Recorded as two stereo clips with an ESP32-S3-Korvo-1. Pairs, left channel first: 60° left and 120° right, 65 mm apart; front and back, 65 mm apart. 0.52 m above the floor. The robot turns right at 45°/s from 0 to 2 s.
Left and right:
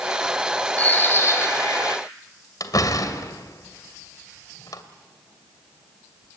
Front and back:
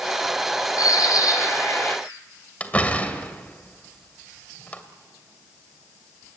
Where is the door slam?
70° left, 2 m.